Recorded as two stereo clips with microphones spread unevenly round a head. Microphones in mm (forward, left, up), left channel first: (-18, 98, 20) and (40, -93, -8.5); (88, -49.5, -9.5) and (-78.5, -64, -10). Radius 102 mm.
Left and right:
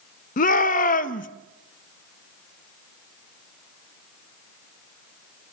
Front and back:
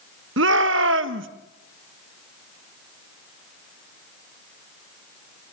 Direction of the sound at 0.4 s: 160° left.